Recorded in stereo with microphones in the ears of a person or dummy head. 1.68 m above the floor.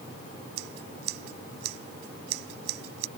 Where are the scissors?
70° right (ahead or behind).